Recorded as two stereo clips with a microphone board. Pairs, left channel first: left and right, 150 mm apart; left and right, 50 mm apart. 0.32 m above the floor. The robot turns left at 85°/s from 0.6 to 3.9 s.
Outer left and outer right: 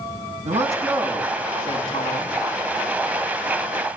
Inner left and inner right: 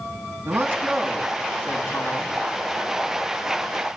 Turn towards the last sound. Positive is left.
turn(degrees=-40)